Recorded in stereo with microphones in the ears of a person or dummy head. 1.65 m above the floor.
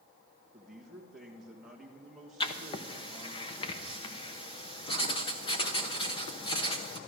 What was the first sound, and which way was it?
A man speaking, 5° left (ahead or behind).